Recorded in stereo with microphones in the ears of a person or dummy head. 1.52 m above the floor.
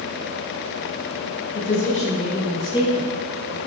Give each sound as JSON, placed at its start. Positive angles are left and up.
{"t": 1.5, "sound": "a woman speaking", "side_deg": 50, "distance_m": 1.7}